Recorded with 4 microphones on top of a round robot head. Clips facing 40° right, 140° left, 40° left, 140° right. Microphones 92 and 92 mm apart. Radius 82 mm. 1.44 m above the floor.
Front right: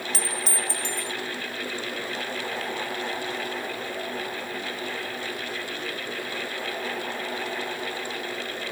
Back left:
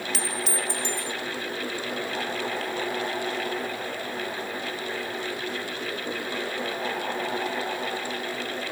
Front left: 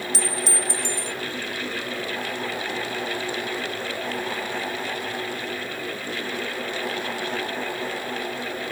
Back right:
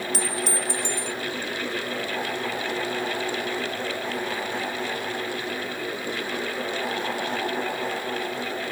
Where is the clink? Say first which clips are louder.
Back left 2 dB, front left 1 dB; 95° right.